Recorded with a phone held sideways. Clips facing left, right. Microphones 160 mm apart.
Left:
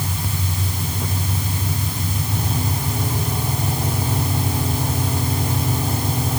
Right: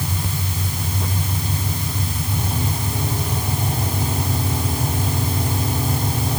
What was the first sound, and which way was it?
Only background noise.